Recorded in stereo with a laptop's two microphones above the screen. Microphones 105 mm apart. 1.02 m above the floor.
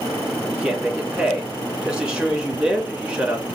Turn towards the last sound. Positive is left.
turn(degrees=-10)  # may be behind; listen again after turning